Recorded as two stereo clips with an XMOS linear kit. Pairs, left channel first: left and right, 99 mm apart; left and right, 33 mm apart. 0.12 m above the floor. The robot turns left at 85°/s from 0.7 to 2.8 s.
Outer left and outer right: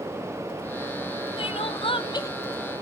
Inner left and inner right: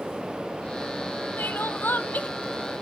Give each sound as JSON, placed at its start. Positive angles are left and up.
{"t": 1.4, "sound": "crying", "azimuth_deg": 115, "distance_m": 0.7}